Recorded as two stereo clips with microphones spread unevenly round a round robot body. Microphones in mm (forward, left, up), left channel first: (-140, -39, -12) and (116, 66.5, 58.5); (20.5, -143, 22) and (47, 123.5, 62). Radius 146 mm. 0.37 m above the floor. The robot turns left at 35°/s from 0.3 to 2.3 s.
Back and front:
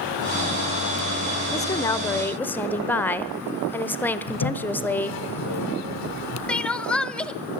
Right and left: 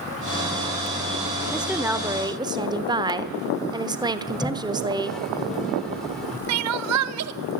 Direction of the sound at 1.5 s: 170° right.